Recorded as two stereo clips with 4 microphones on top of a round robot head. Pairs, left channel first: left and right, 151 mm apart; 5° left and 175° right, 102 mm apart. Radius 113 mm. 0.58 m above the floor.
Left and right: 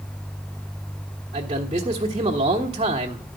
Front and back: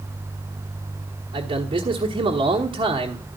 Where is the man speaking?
150° right, 1.2 m.